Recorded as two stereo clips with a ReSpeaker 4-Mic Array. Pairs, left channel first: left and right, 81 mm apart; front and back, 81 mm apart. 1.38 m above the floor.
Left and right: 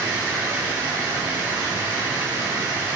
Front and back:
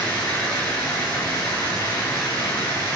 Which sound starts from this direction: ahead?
Running water, at 0.0 s.